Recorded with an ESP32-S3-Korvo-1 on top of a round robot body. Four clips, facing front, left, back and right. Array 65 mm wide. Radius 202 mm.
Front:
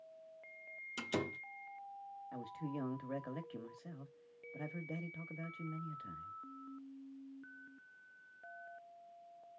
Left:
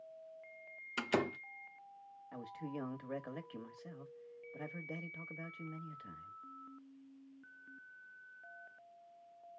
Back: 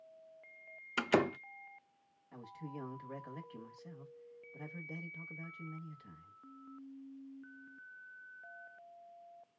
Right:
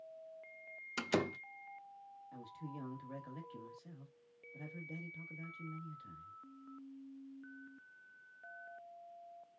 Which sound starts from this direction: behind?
A door slam, at 1.0 s.